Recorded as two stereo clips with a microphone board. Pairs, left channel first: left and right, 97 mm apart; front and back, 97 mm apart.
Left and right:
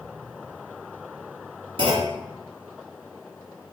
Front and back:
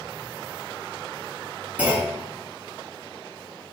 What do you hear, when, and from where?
1.8 s a clunk: 105° right, 3.5 m